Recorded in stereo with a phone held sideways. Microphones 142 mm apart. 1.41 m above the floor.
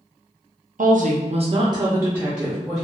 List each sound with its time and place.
0.8 s a woman speaking: 70° right (ahead or behind), 0.5 m; by 2.8 s centre (ahead or behind), 0.9 m